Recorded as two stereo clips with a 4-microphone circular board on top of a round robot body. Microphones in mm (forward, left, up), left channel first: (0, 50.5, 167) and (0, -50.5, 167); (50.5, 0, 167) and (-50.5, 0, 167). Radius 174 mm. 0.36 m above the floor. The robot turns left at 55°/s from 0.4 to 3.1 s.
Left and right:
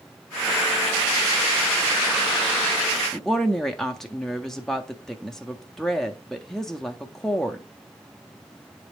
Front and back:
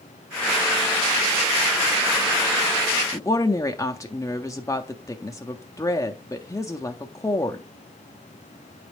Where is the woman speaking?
10° left, 0.8 m.